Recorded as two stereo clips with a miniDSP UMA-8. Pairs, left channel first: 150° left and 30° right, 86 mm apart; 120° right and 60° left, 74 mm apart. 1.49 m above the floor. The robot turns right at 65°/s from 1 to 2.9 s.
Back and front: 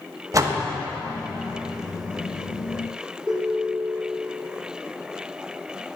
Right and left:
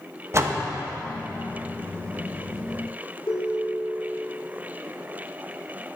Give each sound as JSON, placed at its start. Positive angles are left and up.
{"t": 0.3, "sound": "a door slam", "azimuth_deg": 15, "distance_m": 1.1}
{"t": 3.3, "sound": "a ringtone", "azimuth_deg": -110, "distance_m": 3.0}